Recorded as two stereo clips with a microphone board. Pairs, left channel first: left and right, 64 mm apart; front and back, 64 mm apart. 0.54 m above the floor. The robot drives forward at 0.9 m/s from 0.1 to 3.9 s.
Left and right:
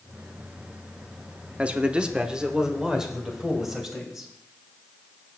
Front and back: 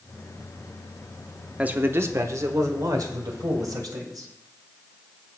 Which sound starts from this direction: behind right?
A man speaking, at 1.6 s.